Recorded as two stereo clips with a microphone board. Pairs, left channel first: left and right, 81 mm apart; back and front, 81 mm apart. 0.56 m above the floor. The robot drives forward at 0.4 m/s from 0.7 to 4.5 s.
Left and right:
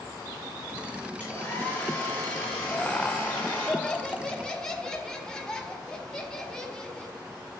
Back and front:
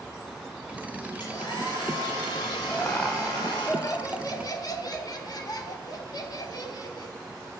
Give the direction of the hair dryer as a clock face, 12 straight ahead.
7 o'clock.